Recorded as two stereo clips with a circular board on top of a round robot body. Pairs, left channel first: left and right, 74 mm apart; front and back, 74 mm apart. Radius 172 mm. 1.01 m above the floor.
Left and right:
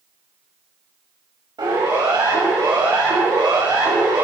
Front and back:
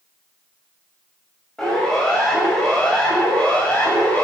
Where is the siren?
80° right, 8 m; by 4.2 s 70° right, 7 m.